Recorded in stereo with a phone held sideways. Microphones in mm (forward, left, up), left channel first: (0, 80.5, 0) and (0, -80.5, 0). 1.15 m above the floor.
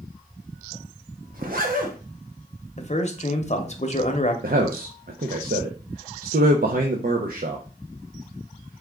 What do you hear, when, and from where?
1.3 s a zipper: 65° right (ahead or behind), 0.9 m
2.8 s a man speaking: 45° left (ahead or behind), 0.8 m
4.4 s a man speaking: 65° right (ahead or behind), 0.6 m